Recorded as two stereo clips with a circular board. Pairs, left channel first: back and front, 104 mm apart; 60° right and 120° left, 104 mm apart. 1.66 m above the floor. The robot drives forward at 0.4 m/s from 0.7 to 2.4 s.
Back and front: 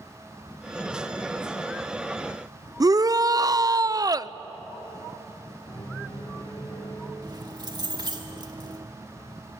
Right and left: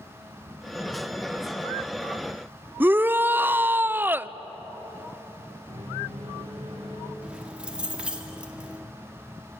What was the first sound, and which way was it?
A shout, 50° left.